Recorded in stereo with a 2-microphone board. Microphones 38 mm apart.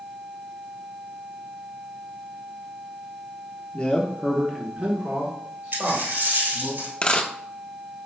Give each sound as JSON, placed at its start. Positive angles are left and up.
{"t": 3.7, "sound": "a man speaking", "side_deg": 30, "distance_m": 0.8}
{"t": 5.7, "sound": "a dropped coin", "side_deg": -70, "distance_m": 2.0}
{"t": 7.0, "sound": "a dropped coin", "side_deg": 30, "distance_m": 0.6}